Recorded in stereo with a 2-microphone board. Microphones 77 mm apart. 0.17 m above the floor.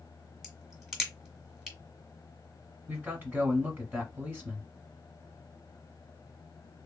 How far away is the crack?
About 1.4 m.